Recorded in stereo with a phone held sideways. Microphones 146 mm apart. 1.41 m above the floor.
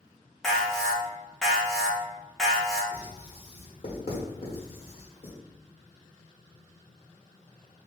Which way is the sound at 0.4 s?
5° left (ahead or behind).